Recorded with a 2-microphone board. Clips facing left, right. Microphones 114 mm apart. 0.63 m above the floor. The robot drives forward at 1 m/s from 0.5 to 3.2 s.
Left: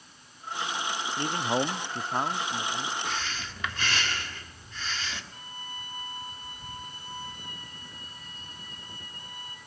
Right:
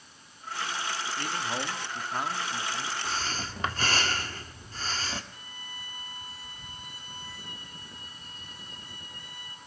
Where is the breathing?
35° right (ahead or behind), 1.7 m.